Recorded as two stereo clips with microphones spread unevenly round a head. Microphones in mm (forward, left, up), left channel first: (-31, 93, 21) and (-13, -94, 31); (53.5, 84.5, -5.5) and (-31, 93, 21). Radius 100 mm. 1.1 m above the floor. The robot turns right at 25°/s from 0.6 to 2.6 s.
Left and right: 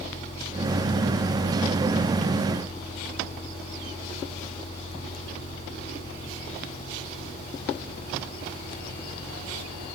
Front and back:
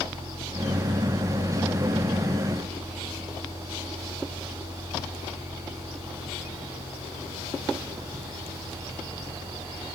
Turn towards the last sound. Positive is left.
No sound to turn to.